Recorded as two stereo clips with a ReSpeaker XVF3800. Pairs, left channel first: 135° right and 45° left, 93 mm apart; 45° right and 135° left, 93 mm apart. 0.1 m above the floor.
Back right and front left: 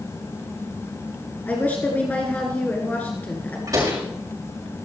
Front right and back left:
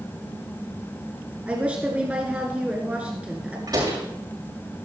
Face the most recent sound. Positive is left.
turn(degrees=95)